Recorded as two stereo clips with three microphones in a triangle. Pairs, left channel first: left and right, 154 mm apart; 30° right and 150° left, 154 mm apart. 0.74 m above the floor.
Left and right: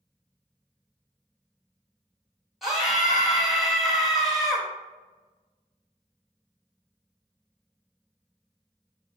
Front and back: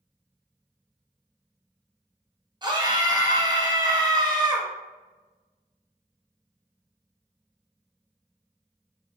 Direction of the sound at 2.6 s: 175° right.